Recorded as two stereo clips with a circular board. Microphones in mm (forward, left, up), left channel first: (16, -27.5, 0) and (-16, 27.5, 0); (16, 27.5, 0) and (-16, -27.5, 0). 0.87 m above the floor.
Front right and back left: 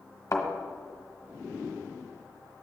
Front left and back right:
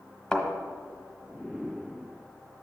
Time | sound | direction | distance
0.3 | a thud | 20° right | 1.4 m